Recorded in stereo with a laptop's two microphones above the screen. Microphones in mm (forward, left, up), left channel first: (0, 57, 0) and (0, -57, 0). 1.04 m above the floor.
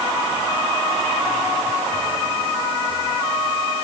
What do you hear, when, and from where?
Only background noise.